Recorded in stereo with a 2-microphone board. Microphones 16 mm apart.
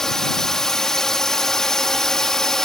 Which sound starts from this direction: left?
A drone, at 0.0 s.